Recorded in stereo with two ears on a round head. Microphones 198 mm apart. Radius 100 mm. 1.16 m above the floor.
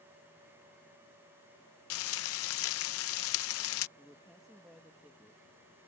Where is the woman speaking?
Centre (ahead or behind).